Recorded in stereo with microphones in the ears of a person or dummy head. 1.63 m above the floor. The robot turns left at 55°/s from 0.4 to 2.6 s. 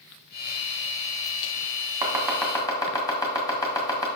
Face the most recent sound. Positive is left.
turn(degrees=20)  # may be behind; listen again after turning